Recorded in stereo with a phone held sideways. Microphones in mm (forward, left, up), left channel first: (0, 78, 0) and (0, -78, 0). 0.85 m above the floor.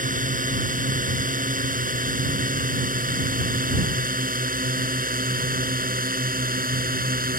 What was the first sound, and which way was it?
A drone, 60° right (ahead or behind).